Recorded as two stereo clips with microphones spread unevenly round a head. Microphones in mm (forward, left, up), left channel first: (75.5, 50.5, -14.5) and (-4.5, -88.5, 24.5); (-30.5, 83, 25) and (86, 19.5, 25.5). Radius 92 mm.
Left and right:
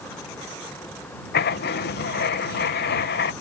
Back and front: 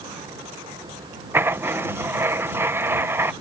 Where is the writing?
45° left.